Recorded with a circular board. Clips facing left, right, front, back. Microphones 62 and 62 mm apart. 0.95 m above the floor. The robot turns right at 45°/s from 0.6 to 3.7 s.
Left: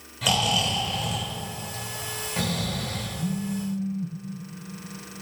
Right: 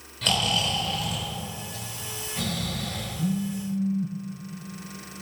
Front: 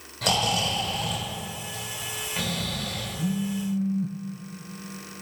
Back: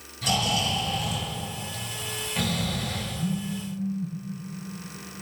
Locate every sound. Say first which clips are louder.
0.2 s snoring: left 2 dB, front 1 dB; 5° left, 3 m; by 3.1 s 120° left, 3 m
3.2 s a phone buzzing: right 2 dB, front 4 dB; 35° right, 0.6 m; by 4.2 s 10° right, 0.6 m